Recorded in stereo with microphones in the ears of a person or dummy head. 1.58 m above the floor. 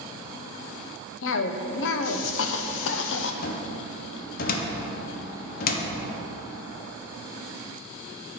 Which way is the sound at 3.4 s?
55° left (ahead or behind).